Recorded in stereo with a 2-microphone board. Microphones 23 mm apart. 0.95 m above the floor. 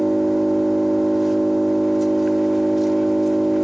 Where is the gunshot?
I don't hear a gunshot.